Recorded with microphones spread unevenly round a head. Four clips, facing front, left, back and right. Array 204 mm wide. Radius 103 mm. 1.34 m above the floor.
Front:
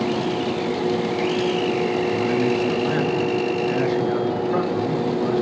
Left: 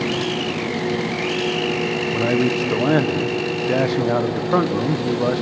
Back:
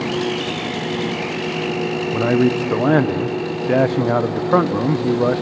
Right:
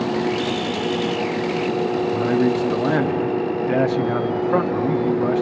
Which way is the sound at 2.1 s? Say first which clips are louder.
Left 1 dB, back 3 dB; 165° left.